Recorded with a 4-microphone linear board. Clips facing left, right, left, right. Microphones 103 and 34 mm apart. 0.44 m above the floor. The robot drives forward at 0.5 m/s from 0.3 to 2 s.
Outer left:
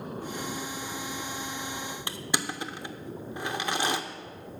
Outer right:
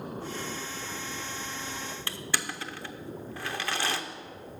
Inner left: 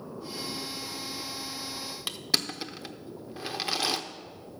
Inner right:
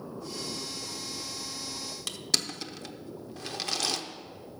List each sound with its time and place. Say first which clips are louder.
2.1 s crushing: outer left 3 dB, inner left 2 dB; 20° left (ahead or behind), 0.6 m